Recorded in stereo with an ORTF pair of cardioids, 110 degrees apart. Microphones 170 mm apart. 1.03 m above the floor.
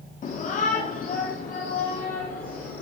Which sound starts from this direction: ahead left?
A shout, at 0.2 s.